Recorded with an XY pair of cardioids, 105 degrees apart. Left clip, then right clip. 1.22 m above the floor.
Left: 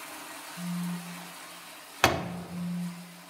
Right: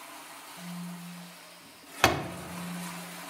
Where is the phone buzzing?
60° left, 3.5 m.